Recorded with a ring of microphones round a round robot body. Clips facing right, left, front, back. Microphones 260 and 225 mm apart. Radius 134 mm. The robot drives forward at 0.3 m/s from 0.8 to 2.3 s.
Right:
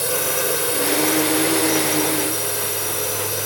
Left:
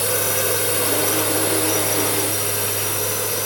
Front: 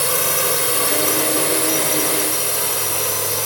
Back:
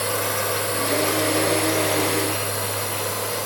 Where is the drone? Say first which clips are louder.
Even, front 2 dB; straight ahead.